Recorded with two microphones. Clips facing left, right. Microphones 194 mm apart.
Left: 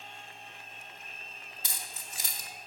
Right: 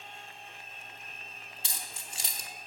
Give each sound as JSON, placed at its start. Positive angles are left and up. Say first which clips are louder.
{"t": 1.6, "sound": "keys jangling", "louder": "even", "side_deg": -30, "distance_m": 1.0}